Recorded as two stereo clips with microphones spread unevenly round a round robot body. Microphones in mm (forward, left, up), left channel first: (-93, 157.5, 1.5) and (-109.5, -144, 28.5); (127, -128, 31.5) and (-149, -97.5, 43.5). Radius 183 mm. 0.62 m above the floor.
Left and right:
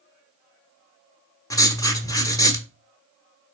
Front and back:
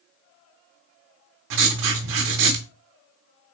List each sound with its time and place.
1.5 s writing: 165° left, 1.3 m